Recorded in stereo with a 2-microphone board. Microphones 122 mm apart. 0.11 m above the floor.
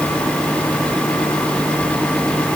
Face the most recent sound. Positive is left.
No sound to turn to.